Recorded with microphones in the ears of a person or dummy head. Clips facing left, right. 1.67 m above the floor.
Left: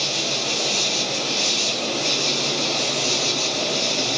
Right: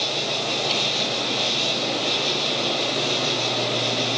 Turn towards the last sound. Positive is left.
turn(degrees=65)  # may be behind; listen again after turning